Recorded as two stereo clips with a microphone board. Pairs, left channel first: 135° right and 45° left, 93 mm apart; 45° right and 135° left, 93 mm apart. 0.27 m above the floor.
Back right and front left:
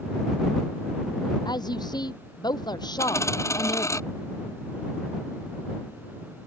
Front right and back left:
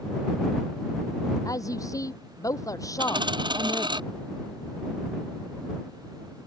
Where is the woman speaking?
95° right.